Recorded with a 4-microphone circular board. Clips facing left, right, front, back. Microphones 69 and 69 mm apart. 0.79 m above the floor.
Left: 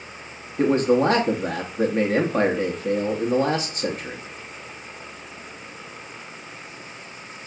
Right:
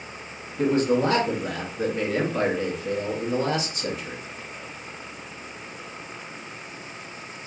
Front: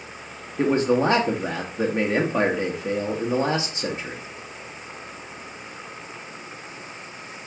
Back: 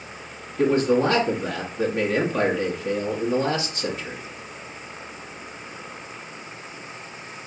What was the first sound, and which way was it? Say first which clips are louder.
A man speaking: left 3 dB, back 1 dB; 55° left.